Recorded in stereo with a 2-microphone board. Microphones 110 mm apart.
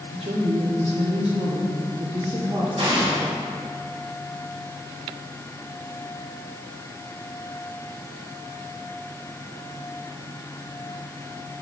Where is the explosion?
65° right (ahead or behind), 3 m.